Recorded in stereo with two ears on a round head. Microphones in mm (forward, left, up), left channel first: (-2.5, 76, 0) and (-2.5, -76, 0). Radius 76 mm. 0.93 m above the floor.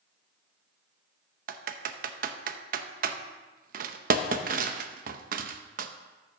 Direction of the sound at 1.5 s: 55° right (ahead or behind).